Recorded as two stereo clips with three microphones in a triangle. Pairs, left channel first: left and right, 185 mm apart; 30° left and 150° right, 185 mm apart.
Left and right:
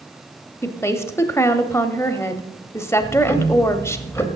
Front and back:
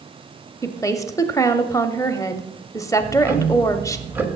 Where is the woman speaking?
50° left, 0.9 m.